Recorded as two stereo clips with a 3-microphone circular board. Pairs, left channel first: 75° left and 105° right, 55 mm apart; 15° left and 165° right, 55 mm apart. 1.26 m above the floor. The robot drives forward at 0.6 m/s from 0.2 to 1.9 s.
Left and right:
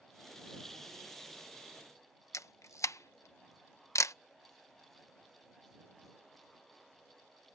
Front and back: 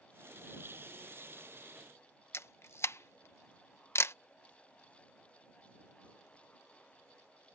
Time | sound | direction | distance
2.3 | a camera shutter | 50° left | ?